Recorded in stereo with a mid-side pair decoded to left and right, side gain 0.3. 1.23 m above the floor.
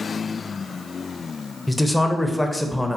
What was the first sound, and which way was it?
A man speaking, 10° left.